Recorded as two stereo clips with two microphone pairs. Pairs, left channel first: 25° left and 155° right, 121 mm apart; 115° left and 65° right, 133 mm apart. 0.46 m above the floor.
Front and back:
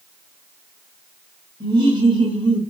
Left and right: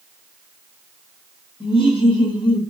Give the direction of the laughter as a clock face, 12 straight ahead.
7 o'clock.